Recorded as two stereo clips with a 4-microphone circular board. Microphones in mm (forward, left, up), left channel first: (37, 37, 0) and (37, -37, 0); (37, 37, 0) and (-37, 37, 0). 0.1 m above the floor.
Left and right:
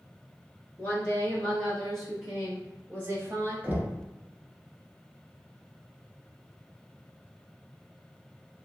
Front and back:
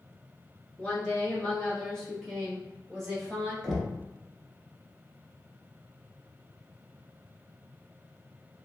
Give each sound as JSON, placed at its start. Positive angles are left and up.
{"t": 0.8, "sound": "a woman speaking", "azimuth_deg": 50, "distance_m": 1.8}
{"t": 3.6, "sound": "knocking", "azimuth_deg": -90, "distance_m": 1.0}